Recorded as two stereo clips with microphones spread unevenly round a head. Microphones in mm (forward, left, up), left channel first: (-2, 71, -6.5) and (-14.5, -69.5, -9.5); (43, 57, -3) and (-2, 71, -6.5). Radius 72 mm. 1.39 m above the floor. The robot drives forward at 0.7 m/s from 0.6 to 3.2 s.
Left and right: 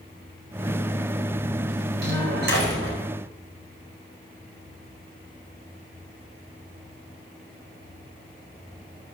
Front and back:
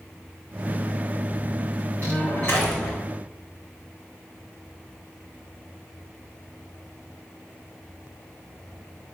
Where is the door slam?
90° right, 4.5 m; by 3.0 s 100° right, 4.5 m.